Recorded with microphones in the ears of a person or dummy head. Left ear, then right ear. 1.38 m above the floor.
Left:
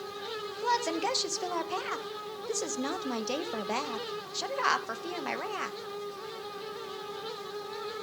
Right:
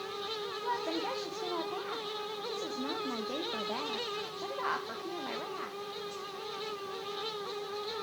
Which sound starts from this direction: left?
A woman speaking, at 0.6 s.